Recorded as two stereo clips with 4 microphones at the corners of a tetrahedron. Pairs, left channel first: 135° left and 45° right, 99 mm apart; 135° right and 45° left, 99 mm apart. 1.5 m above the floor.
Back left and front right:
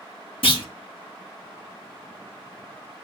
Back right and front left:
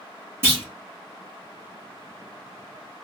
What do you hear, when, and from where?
0.4 s a clunk: 110° left, 1.8 m